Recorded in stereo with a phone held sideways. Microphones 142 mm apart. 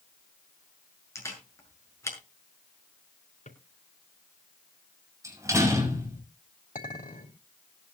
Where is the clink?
65° left (ahead or behind), 3.5 m.